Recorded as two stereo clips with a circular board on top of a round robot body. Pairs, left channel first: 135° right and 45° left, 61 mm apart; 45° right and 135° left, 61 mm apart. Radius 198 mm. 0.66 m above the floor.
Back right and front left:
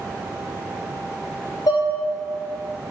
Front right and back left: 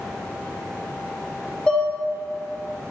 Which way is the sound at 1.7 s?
120° right.